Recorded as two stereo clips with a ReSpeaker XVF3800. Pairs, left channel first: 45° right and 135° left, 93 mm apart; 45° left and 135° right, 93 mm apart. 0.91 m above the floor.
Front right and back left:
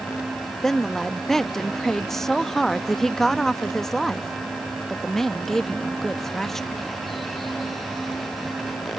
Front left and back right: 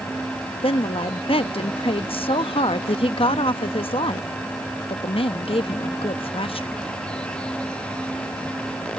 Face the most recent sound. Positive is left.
turn(degrees=40)